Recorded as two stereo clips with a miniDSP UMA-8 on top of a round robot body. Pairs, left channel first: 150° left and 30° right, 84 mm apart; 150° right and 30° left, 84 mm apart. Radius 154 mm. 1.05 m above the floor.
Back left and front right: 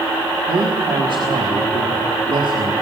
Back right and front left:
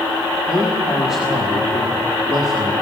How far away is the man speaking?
About 1.9 m.